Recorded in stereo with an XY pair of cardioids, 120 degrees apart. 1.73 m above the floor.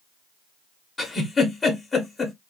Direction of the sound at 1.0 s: 25° left.